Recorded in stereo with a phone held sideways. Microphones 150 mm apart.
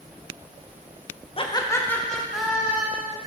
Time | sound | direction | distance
1.4 | laughter | 40° left (ahead or behind) | 0.6 m